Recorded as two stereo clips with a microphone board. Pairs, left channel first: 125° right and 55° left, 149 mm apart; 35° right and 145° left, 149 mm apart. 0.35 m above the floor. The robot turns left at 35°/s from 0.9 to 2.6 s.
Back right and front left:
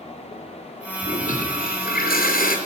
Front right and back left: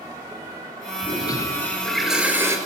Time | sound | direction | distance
1.0 | a toilet flushing | 90° right | 5 m